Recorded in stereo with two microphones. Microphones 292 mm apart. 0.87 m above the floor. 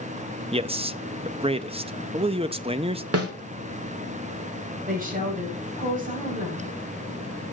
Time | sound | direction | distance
0.5 | a man speaking | 20° right (ahead or behind) | 0.6 m
3.1 | a snare drum | 50° right (ahead or behind) | 2 m
4.9 | a woman speaking | 25° right (ahead or behind) | 4.5 m